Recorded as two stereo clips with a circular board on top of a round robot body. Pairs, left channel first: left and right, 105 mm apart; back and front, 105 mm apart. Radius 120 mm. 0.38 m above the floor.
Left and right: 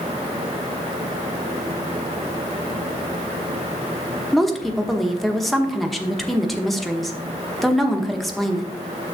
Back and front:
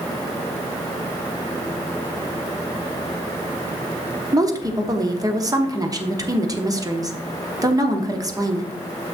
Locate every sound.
4.3 s a woman speaking: straight ahead, 1.2 m